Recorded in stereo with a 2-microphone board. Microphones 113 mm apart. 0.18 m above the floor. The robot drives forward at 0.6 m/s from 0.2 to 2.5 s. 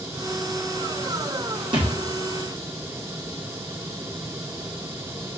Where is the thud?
45° right (ahead or behind), 1.4 m; by 1.9 s 50° right (ahead or behind), 1.3 m.